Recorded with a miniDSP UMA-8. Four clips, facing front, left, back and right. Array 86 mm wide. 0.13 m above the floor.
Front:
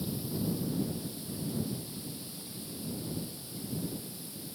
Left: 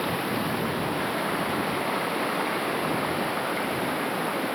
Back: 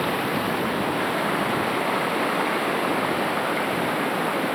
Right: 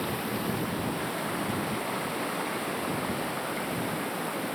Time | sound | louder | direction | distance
0.0 | running water | left 4 dB, back 12 dB | 160° left | ?